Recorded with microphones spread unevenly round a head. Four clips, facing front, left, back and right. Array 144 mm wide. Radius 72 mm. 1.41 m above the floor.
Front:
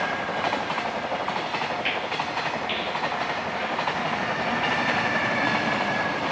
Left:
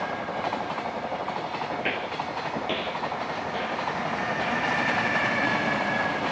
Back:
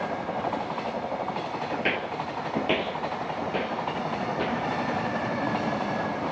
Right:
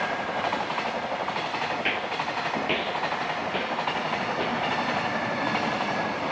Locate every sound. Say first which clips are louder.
1.7 s footsteps: right 1 dB, front 1 dB; 165° left, 1.6 m; by 4.6 s 155° right, 3 m